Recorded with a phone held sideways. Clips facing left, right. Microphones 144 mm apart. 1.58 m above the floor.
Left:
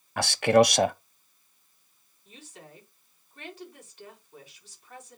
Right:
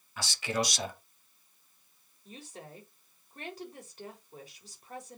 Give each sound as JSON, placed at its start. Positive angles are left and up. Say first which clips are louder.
{"t": 0.2, "sound": "a man speaking", "louder": "left 13 dB", "side_deg": 65, "distance_m": 0.6}
{"t": 2.2, "sound": "a woman speaking", "louder": "right 2 dB", "side_deg": -40, "distance_m": 4.0}